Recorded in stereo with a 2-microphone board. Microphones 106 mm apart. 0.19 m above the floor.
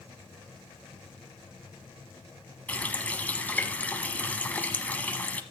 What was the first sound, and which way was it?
A running tap, 15° left (ahead or behind).